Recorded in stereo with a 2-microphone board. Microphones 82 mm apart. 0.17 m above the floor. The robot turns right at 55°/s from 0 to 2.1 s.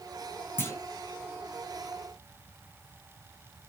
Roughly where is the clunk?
Left.